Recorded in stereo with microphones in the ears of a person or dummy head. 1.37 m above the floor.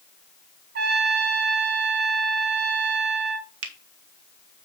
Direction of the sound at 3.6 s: 75° right (ahead or behind).